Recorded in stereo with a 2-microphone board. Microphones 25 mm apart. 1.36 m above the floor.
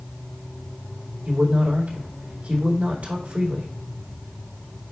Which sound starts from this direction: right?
A man speaking, at 1.2 s.